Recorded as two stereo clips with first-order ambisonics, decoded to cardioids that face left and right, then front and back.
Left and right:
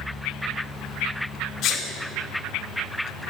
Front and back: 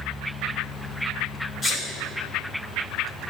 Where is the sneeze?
60° left, 0.6 m.